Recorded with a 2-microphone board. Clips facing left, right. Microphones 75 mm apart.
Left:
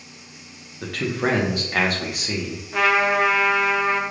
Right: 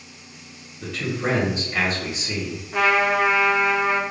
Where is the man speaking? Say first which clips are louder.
Left 2 dB; 65° left (ahead or behind), 0.7 m.